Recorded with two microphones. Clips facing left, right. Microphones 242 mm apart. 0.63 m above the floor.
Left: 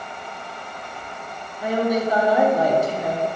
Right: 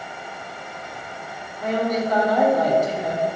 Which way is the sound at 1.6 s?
10° left (ahead or behind).